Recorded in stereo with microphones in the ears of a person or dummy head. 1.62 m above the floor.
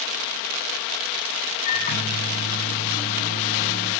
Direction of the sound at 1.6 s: 50° left (ahead or behind).